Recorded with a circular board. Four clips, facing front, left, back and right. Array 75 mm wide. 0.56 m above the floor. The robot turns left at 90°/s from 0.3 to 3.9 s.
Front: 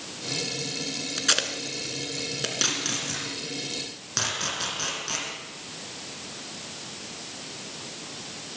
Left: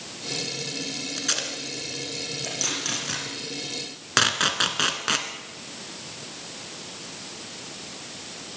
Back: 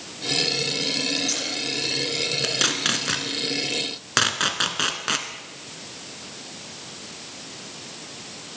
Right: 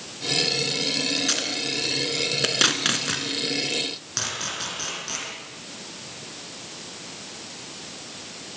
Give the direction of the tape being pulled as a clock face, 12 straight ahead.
11 o'clock.